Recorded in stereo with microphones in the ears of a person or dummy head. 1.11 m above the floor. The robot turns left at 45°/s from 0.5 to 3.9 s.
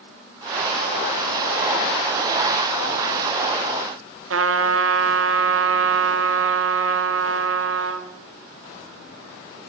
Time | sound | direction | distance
4.3 | a trumpet | 80° right | 2 m